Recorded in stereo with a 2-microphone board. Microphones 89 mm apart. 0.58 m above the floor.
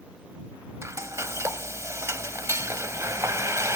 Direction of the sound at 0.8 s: 35° right (ahead or behind).